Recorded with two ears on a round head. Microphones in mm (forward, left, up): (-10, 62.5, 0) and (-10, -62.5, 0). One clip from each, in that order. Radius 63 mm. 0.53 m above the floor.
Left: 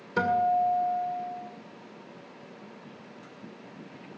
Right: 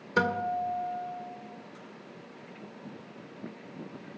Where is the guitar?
20° right (ahead or behind), 1.6 m.